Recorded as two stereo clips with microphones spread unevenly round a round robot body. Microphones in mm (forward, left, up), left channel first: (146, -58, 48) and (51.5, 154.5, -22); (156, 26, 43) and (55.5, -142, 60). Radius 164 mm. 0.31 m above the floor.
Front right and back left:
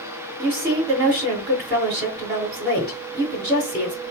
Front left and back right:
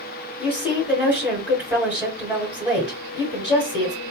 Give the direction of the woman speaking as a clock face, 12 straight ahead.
7 o'clock.